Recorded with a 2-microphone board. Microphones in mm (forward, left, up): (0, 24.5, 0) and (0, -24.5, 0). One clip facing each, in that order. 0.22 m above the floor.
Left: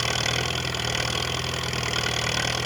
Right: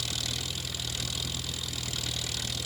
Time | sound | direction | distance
0.0 | an engine running | 55° left (ahead or behind) | ?